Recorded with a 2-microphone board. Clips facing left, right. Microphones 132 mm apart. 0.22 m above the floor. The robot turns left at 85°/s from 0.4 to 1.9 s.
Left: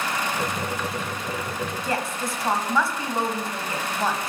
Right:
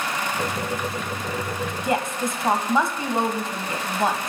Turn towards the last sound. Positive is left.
turn(degrees=-20)  # may be behind; listen again after turning